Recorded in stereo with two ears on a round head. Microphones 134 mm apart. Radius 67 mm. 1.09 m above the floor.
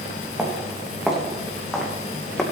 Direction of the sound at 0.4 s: 5° right (ahead or behind).